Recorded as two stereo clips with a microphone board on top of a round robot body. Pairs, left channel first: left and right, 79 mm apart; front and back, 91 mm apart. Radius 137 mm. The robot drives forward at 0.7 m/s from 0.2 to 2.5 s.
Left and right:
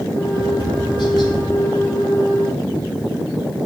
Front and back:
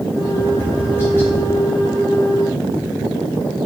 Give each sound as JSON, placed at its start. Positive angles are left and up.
{"t": 0.4, "sound": "tapping", "azimuth_deg": 60, "distance_m": 8.5}